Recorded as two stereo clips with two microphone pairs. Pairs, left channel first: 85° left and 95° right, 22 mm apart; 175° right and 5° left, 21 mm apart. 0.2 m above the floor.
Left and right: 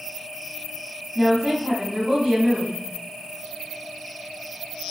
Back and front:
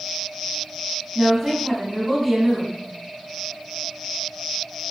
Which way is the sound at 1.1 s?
75° right.